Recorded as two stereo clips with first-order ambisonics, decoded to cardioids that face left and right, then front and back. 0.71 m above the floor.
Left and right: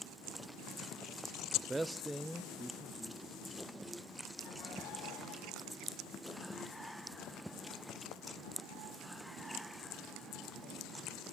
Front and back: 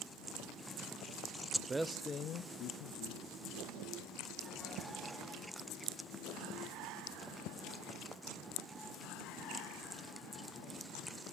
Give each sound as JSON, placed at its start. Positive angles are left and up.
{"t": 1.5, "sound": "a man speaking", "azimuth_deg": -160, "distance_m": 0.5}